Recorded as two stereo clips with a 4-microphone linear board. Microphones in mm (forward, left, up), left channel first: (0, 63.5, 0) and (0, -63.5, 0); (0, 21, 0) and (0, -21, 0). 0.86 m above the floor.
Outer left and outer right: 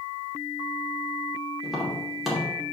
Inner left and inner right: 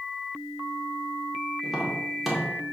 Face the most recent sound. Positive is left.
turn(degrees=0)  # may be behind; listen again after turning